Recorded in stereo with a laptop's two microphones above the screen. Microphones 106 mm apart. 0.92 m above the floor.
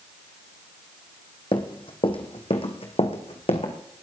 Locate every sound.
1.5 s running footsteps: 50° left (ahead or behind), 2.5 m; by 3.7 s 70° left (ahead or behind), 3 m